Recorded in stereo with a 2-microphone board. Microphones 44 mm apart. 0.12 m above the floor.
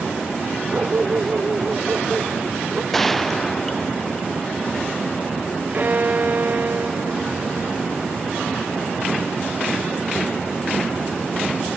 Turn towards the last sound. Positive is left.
turn(degrees=-40)  # may be behind; listen again after turning